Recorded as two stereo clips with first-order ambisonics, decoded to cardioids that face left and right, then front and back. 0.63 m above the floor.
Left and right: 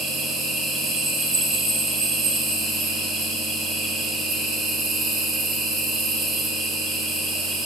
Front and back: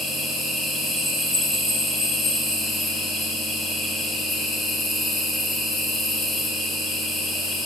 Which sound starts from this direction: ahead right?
An insect, at 0.0 s.